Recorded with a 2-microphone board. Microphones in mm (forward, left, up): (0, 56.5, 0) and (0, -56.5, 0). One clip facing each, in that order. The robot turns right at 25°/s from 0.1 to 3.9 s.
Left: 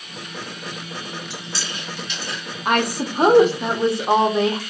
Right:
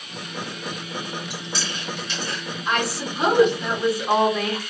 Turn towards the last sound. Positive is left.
turn(degrees=155)